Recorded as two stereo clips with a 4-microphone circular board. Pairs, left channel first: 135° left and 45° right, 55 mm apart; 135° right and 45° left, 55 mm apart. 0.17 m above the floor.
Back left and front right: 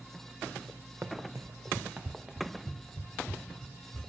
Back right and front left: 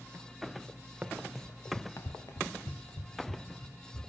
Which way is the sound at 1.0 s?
15° right.